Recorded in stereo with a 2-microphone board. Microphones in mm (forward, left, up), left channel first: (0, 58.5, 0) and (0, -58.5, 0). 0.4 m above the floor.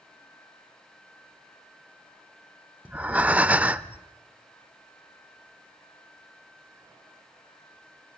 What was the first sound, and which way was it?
Breathing, 10° right (ahead or behind).